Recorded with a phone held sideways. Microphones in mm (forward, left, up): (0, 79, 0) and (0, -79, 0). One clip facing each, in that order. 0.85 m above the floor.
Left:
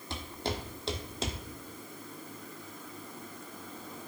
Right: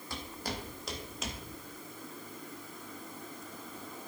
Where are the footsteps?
25° left (ahead or behind), 1.6 m; by 1.4 s 30° left (ahead or behind), 1.1 m.